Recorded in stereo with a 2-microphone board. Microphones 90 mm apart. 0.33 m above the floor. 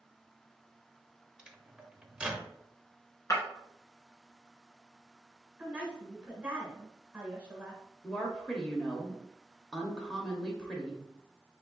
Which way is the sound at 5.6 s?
15° right (ahead or behind).